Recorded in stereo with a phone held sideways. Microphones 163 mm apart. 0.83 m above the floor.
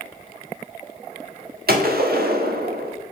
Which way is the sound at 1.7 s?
70° right (ahead or behind).